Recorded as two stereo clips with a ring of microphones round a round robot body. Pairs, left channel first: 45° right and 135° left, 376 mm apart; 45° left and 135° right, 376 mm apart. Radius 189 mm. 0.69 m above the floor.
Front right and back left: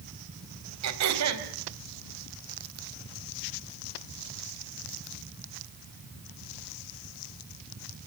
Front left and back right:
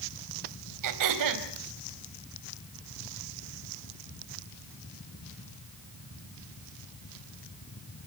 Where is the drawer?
I don't hear a drawer.